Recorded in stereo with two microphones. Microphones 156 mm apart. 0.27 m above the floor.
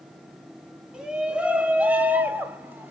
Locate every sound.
0.9 s a shout: 5° right (ahead or behind), 1.8 m; by 2.9 s 15° right (ahead or behind), 1.5 m